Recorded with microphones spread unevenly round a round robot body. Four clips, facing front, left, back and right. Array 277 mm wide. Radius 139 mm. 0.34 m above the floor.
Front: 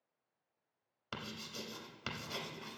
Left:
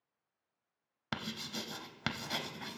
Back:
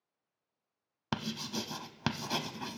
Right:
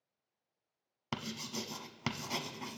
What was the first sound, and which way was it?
Writing, straight behind.